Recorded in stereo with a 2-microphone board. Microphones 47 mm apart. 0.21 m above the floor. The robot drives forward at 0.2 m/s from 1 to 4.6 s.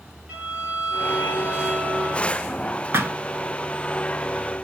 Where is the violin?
40° right (ahead or behind), 2 m; by 2.3 s 45° right (ahead or behind), 2 m.